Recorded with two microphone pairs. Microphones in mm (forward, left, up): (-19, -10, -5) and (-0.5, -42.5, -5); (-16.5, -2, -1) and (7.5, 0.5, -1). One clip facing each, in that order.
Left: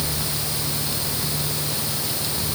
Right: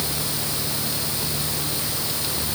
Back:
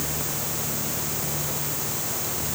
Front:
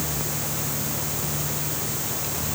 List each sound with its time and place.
Only background noise.